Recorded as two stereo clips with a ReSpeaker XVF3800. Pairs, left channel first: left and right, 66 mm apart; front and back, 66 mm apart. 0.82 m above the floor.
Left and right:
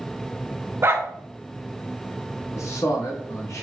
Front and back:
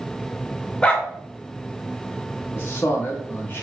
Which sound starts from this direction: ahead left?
A man speaking, at 2.5 s.